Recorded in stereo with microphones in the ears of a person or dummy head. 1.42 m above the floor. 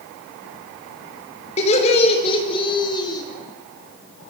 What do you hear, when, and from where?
1.6 s laughter: 35° left (ahead or behind), 5 m; by 3.2 s 20° left (ahead or behind), 4.5 m